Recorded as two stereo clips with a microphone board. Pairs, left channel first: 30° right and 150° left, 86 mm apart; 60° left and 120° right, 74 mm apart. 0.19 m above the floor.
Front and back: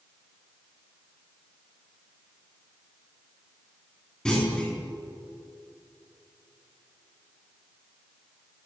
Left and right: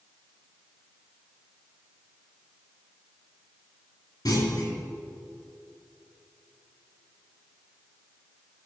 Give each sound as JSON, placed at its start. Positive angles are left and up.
{"t": 4.2, "sound": "a clunk", "azimuth_deg": 50, "distance_m": 3.0}